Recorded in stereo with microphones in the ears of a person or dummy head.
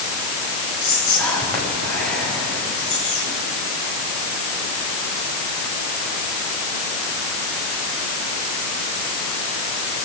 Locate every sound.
0.8 s whispering: 5° left (ahead or behind), 7.5 m